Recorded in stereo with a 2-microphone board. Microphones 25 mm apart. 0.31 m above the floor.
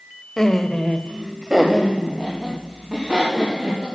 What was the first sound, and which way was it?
Laughter, 20° left (ahead or behind).